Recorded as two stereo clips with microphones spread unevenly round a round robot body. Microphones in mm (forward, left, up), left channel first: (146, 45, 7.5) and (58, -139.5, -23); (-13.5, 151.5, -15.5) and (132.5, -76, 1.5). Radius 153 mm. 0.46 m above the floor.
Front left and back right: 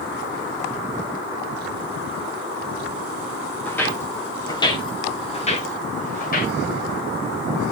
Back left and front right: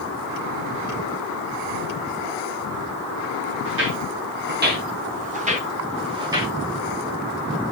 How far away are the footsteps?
About 6 m.